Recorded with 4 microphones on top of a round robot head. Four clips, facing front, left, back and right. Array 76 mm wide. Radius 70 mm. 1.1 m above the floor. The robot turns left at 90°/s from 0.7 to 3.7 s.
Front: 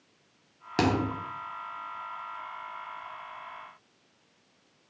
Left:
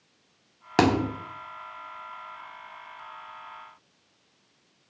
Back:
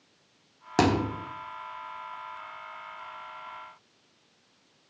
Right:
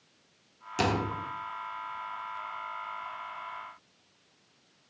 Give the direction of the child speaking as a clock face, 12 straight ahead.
No child speaking in this recording.